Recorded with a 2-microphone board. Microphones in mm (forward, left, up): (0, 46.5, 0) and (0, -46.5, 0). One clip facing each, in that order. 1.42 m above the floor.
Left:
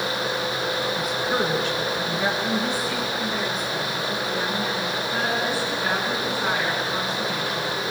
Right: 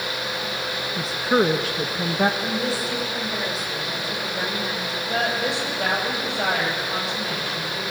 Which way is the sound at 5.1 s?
85° right.